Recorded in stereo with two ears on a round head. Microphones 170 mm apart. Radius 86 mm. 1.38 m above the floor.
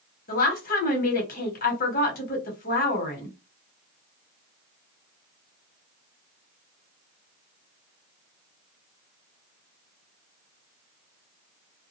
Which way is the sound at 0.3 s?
50° left (ahead or behind).